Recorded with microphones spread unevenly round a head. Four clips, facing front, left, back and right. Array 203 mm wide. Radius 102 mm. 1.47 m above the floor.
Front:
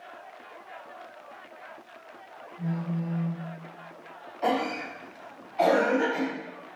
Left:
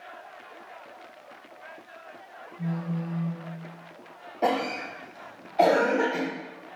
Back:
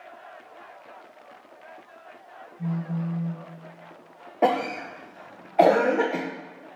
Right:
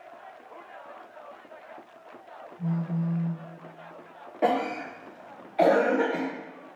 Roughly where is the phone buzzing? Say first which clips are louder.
Right 2 dB, back 1 dB; ahead left.